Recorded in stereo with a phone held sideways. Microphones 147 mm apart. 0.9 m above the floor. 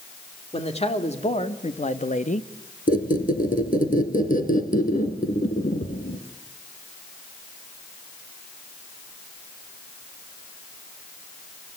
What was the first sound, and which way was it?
A man speaking, 45° left (ahead or behind).